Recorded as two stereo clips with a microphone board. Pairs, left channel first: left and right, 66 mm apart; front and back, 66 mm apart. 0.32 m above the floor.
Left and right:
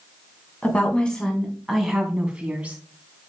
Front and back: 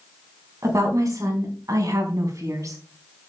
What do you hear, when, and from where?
0.6 s a woman speaking: 155° left, 3.5 m; by 2.8 s 155° right, 3.5 m